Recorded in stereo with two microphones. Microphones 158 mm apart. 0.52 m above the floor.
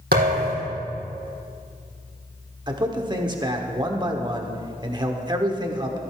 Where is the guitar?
I don't hear a guitar.